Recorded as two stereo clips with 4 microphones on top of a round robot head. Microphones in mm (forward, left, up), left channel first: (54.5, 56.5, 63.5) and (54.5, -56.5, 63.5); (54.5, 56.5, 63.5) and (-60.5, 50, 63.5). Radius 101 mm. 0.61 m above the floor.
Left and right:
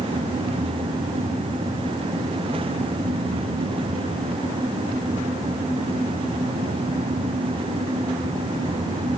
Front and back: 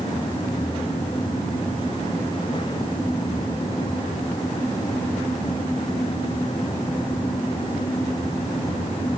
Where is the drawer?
I don't hear a drawer.